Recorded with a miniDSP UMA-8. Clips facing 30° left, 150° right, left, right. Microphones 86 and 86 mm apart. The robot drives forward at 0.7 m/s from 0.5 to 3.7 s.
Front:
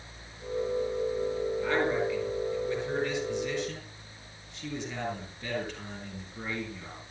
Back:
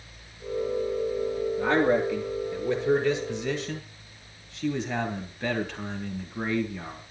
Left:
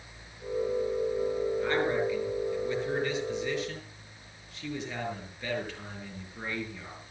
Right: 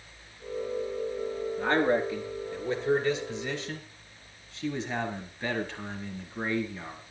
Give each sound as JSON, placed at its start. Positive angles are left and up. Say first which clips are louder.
{"t": 1.6, "sound": "a man speaking", "louder": "back 6 dB, right 6 dB", "azimuth_deg": -140, "distance_m": 6.5}